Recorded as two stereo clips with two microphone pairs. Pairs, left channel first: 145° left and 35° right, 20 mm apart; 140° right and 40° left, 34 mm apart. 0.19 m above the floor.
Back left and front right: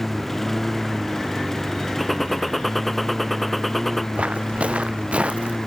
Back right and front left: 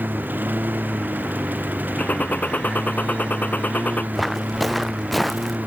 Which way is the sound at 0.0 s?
65° left.